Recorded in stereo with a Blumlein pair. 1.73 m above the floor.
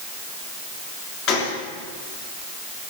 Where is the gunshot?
35° left, 3.5 m.